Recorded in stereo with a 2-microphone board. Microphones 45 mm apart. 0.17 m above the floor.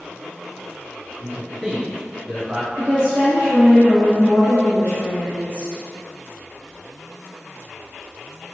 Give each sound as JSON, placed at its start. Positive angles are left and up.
{"t": 1.2, "sound": "a man speaking", "side_deg": -25, "distance_m": 1.4}
{"t": 2.8, "sound": "a woman speaking", "side_deg": 55, "distance_m": 1.7}